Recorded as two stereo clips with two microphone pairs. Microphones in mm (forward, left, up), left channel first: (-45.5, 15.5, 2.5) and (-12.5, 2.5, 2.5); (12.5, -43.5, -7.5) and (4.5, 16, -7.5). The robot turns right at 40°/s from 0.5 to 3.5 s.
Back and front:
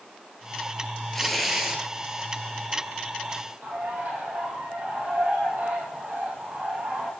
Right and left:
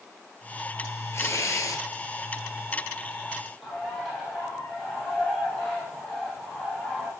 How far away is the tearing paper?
About 1.3 m.